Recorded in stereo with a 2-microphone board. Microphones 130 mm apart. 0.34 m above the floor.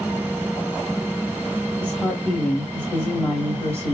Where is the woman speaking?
10° left (ahead or behind), 1.7 m.